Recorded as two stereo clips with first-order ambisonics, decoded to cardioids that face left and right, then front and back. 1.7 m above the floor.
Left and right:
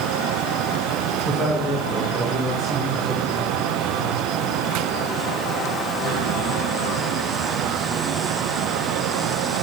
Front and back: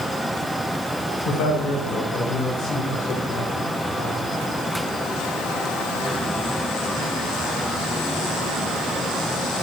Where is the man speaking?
15° left, 7 m; by 4.2 s 20° left, 4 m.